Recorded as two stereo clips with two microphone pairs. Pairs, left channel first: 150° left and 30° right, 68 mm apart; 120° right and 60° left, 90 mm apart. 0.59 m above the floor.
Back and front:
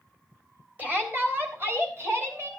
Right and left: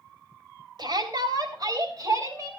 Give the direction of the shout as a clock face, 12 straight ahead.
11 o'clock.